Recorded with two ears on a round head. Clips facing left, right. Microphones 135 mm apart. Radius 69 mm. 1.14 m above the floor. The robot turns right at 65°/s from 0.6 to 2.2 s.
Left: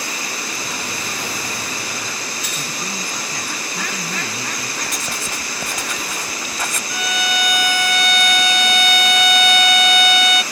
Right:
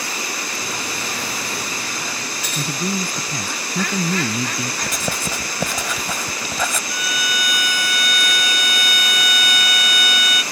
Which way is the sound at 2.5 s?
85° right.